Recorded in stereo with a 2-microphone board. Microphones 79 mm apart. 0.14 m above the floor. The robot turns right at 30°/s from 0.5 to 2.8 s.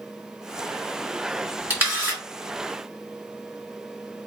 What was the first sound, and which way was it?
A camera shutter, 25° right (ahead or behind).